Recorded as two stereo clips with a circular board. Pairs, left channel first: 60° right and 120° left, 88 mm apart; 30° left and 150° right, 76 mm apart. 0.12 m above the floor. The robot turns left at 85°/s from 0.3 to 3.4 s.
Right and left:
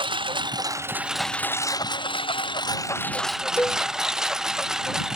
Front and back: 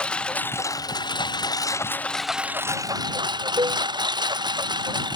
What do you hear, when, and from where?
0.0 s a lawn mower: 105° left; by 5.2 s 155° right
3.6 s a cowbell: 130° right